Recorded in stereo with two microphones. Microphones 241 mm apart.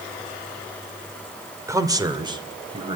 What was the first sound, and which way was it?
A man speaking, 15° right (ahead or behind).